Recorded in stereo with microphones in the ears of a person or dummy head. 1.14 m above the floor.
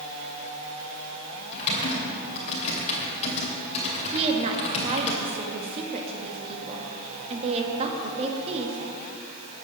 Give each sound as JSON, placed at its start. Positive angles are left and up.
{"t": 1.5, "sound": "typing on a keyboard", "side_deg": 40, "distance_m": 2.5}
{"t": 4.1, "sound": "a woman speaking", "side_deg": -30, "distance_m": 1.6}